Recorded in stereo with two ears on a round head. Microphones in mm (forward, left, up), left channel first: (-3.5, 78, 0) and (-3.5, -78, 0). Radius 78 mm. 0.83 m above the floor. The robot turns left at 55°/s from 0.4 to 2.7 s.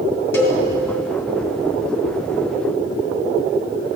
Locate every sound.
0.3 s a cowbell: 10° left (ahead or behind), 2 m; by 0.6 s 25° left (ahead or behind), 2 m